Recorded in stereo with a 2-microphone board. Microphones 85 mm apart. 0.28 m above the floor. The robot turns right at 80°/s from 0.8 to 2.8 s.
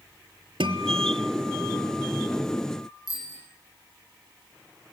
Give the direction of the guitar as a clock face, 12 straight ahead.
3 o'clock.